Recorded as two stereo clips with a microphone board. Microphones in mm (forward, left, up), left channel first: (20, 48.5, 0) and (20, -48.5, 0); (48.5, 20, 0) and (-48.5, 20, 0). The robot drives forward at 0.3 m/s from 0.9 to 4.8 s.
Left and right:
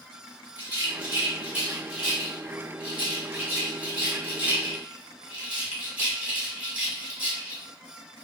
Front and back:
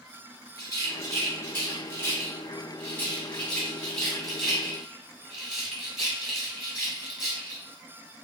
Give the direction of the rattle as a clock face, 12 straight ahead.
1 o'clock.